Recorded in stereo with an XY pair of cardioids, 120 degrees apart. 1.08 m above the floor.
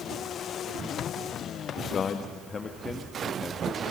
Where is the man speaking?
45° left, 1.1 m; by 3.8 s 15° left, 2.0 m.